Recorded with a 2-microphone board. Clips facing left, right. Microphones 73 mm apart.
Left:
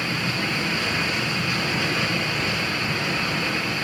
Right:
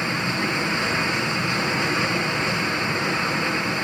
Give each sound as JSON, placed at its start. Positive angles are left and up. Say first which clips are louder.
{"t": 0.0, "sound": "running water", "louder": "right 2 dB", "side_deg": -25, "distance_m": 2.5}